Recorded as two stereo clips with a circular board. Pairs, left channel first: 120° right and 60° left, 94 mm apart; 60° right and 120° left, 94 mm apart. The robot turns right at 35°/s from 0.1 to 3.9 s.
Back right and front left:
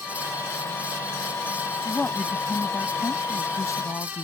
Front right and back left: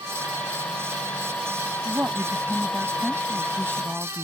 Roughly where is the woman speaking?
Behind.